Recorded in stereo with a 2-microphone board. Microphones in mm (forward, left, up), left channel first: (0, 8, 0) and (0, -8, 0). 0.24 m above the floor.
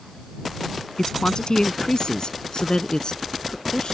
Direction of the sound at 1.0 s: 55° left (ahead or behind).